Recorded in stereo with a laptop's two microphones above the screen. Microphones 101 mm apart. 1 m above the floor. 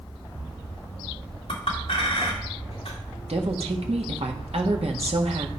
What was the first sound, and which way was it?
A clink, 75° left (ahead or behind).